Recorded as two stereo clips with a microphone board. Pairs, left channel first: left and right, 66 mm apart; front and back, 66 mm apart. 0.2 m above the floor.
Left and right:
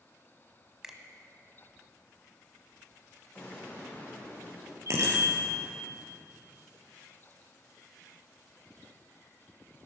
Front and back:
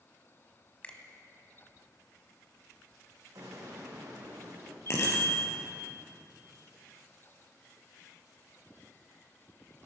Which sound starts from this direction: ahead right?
A bicycle bell, at 4.9 s.